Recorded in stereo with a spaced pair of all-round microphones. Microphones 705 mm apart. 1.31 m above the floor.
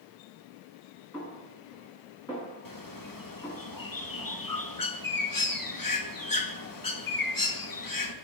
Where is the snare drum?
5° left (ahead or behind), 6 m.